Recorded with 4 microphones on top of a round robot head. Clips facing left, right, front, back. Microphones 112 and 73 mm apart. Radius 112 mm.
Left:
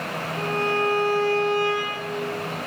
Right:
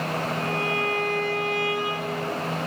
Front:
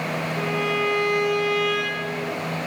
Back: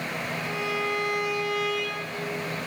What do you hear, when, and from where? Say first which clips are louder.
0.4 s a violin: left 3 dB, front 6 dB; 35° left, 6.5 m